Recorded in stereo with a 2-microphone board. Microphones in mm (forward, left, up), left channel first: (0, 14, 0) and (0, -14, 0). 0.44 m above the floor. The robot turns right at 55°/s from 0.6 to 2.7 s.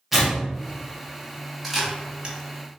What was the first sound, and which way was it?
Tearing paper, 5° right (ahead or behind).